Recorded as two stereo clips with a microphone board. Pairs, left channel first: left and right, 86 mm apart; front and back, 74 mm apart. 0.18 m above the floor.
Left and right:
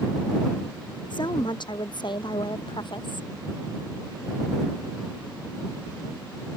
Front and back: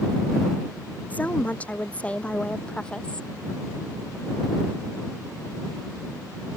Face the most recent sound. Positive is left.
turn(degrees=80)